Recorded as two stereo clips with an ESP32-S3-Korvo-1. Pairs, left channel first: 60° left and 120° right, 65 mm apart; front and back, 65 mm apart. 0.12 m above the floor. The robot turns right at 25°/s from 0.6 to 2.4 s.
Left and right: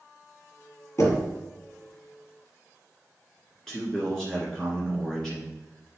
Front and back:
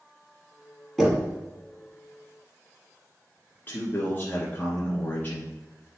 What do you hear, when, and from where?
1.0 s knocking: 85° left, 2 m; by 1.3 s 95° left, 2 m
3.7 s a man speaking: 20° right, 1.4 m